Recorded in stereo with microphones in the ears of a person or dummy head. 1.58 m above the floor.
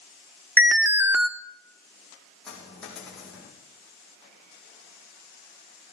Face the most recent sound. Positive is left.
turn(degrees=5)  # may be behind; listen again after turning